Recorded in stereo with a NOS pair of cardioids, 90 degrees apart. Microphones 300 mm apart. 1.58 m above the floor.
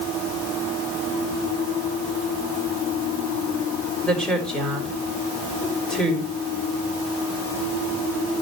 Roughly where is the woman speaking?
Ahead.